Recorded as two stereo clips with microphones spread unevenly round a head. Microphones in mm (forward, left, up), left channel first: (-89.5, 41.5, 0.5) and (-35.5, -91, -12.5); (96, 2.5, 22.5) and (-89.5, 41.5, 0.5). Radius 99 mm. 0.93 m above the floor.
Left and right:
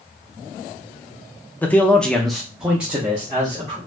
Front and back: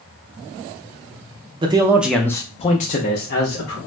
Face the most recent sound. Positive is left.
turn(degrees=5)